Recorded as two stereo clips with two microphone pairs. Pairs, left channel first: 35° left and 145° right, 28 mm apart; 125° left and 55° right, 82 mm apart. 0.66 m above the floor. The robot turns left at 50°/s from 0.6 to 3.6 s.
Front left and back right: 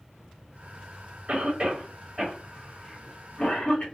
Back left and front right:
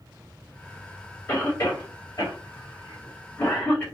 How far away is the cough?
About 1.1 m.